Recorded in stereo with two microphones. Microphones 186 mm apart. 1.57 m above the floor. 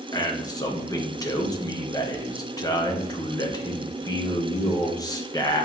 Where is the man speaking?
20° left (ahead or behind), 1.3 m.